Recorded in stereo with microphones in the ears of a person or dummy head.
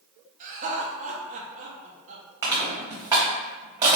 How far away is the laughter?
About 0.8 m.